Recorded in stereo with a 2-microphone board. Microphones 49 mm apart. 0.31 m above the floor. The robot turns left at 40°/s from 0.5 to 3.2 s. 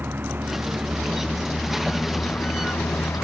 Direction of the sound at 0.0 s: 135° right.